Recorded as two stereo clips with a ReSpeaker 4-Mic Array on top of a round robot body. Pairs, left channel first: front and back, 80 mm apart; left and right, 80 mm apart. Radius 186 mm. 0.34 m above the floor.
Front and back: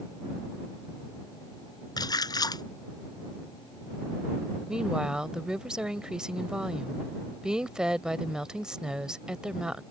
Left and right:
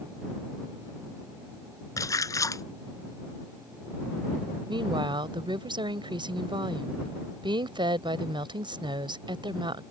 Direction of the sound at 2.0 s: 40° left.